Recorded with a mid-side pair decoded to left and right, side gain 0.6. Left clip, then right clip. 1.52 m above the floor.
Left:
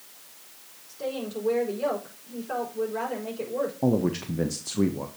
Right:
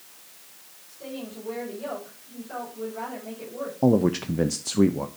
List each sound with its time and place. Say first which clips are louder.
0.9 s a woman speaking: left 6 dB; 55° left, 5.5 m
3.8 s a man speaking: right 8 dB; 25° right, 0.7 m